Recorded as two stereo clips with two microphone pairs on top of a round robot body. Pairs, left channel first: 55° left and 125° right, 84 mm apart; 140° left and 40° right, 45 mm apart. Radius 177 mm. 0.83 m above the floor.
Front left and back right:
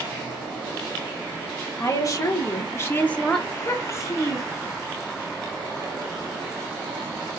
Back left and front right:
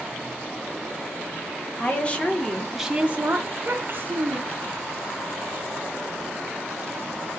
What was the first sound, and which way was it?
A woman speaking, 90° left.